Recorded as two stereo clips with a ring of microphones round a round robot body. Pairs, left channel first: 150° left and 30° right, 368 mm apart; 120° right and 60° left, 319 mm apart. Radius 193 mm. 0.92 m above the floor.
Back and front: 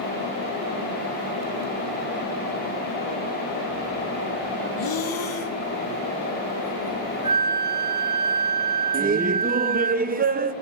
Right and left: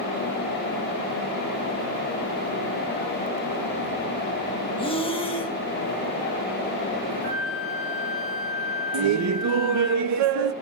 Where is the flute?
70° right, 1.8 m.